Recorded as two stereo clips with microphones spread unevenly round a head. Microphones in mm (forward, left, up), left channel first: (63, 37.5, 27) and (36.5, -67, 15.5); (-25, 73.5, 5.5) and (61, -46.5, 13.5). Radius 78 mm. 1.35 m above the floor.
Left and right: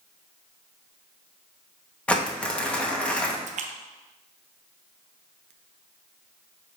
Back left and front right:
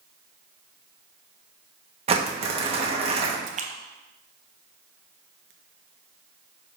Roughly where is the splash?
Right.